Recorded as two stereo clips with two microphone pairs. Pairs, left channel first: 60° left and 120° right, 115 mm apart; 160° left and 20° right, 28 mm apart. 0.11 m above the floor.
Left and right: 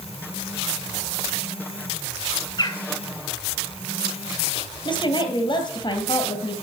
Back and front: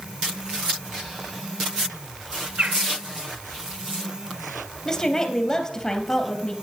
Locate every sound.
2.6 s a bird: 15° left, 1.1 m
4.8 s a woman speaking: 90° left, 2.5 m